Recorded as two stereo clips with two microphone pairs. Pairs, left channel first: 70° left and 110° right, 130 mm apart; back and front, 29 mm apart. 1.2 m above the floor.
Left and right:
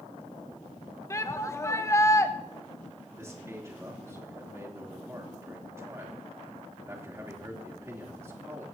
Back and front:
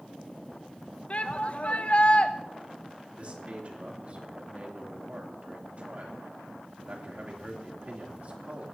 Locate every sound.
1.1 s a shout: 135° left, 1.0 m
3.2 s a man speaking: 45° right, 3 m